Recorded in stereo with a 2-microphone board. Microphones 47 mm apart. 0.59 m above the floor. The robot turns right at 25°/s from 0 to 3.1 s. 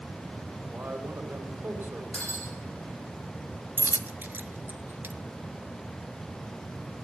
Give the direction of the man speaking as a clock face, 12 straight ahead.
3 o'clock.